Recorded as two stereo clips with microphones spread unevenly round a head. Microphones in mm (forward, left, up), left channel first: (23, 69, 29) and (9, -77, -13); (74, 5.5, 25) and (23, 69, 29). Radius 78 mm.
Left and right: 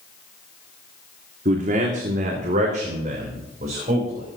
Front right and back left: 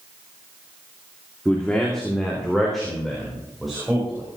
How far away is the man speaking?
About 1.9 m.